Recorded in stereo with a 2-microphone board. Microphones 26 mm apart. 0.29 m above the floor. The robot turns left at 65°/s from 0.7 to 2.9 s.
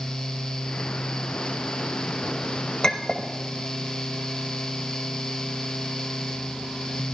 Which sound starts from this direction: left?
A clink, at 2.8 s.